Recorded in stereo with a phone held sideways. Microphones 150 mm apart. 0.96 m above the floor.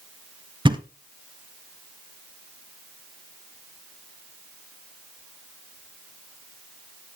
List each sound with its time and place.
0.7 s a thud: 30° right (ahead or behind), 1.0 m